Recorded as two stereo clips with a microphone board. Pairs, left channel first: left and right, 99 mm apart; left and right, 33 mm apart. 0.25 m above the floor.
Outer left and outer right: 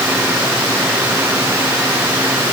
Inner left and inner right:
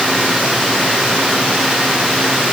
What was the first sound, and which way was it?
Only background noise.